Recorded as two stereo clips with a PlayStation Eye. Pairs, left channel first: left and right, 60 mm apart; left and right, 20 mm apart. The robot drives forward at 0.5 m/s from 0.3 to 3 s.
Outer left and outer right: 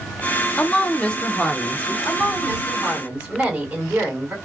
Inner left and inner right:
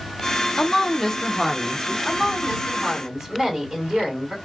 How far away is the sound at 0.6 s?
About 0.6 m.